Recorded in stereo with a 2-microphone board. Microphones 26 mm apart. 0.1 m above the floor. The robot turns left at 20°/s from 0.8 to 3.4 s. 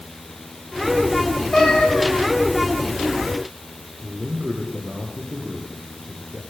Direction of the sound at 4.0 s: 75° right (ahead or behind).